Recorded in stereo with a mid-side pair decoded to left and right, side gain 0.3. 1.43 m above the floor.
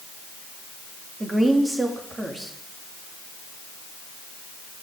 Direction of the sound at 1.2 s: 25° right.